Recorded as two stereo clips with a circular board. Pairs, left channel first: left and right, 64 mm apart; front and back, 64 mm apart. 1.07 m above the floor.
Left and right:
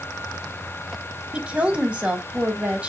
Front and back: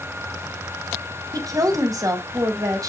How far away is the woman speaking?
About 1.8 m.